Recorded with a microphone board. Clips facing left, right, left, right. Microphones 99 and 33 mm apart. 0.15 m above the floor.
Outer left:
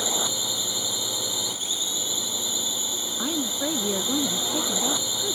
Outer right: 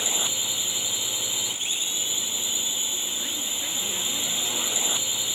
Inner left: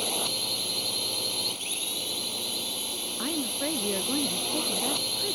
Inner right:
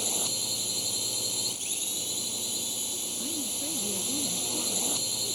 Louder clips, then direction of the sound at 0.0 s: Outer left 4 dB, inner left 3 dB; 20° left (ahead or behind).